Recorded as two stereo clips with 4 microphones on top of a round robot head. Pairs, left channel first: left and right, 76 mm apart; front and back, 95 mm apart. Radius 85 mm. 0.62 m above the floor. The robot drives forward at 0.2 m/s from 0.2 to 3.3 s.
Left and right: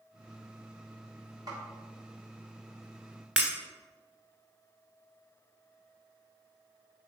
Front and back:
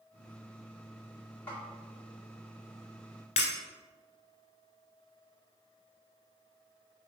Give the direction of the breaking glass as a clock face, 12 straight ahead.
1 o'clock.